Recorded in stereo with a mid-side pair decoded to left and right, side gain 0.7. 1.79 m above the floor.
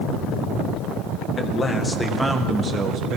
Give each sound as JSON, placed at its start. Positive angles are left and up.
{"t": 1.4, "sound": "a man speaking", "azimuth_deg": 30, "distance_m": 1.9}